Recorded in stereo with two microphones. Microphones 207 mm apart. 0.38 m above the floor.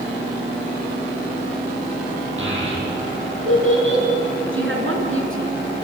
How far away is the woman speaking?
About 4 m.